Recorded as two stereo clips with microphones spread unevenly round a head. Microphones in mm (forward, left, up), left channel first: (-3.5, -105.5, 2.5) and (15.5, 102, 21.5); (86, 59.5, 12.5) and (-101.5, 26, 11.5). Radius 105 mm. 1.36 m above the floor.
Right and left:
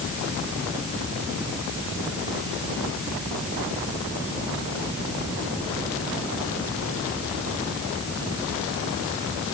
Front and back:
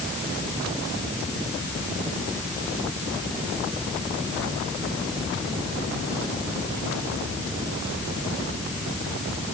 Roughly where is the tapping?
No tapping in this recording.